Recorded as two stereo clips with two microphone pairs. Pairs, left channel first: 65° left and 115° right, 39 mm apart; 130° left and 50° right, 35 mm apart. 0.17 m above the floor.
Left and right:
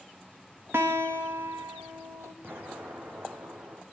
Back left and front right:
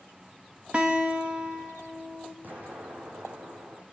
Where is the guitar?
110° right, 4.5 m.